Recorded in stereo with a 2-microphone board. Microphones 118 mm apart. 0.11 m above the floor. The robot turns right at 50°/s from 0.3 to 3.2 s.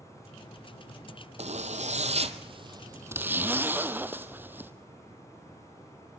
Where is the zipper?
105° right, 1.2 m; by 4.7 s 15° right, 1.2 m.